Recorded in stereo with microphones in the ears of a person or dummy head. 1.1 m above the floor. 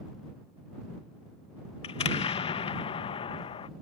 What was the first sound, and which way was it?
An explosion, 25° left (ahead or behind).